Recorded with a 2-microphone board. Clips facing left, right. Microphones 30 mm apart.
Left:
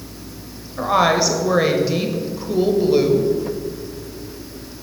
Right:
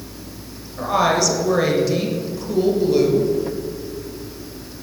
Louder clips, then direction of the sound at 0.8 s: Left 2 dB; 20° left (ahead or behind).